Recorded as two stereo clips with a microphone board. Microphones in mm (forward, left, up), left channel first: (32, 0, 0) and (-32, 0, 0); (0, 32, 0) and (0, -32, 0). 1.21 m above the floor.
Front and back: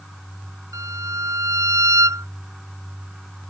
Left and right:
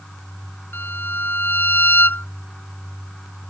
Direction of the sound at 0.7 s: 145° left.